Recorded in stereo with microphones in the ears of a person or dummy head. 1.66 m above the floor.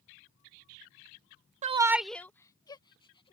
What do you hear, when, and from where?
1.6 s a shout: 40° right (ahead or behind); by 3.4 s 25° left (ahead or behind)